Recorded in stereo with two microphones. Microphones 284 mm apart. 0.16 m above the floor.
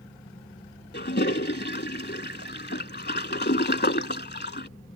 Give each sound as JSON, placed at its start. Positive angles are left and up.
{"t": 0.9, "sound": "a toilet flushing", "side_deg": 35}